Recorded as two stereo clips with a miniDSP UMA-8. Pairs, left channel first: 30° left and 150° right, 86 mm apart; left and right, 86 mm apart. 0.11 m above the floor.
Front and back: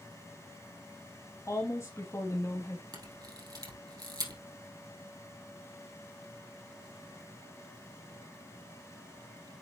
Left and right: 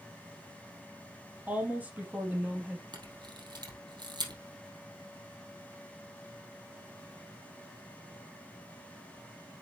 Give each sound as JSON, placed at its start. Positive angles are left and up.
{"t": 1.5, "sound": "a woman speaking", "azimuth_deg": -20, "distance_m": 3.5}
{"t": 2.9, "sound": "a camera shutter", "azimuth_deg": -115, "distance_m": 2.5}